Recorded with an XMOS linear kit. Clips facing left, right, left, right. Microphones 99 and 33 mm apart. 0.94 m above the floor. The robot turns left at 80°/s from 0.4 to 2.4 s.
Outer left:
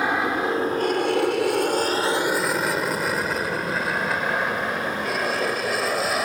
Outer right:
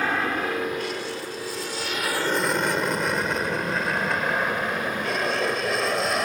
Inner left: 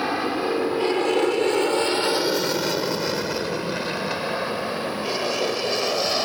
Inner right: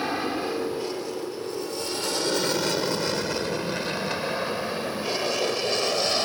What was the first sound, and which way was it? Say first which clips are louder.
An aircraft: outer left 3 dB, inner left 3 dB; 15° left (ahead or behind).